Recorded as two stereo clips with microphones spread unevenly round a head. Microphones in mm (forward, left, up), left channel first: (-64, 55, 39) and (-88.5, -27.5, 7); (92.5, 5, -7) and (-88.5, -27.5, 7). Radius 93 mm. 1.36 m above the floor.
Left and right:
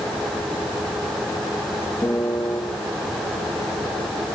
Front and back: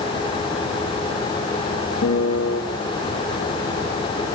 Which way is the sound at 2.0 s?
10° left.